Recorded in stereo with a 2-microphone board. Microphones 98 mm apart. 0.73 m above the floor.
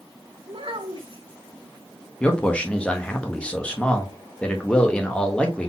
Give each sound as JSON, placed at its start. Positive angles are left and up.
{"t": 0.5, "sound": "a child speaking", "side_deg": -65, "distance_m": 1.3}
{"t": 2.2, "sound": "a man speaking", "side_deg": 10, "distance_m": 1.0}